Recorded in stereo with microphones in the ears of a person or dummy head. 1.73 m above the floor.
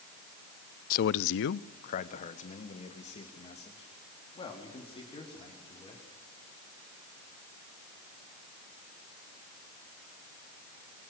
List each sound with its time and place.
0.9 s a man speaking: 45° left (ahead or behind), 0.5 m; by 6.0 s 30° left (ahead or behind), 5.5 m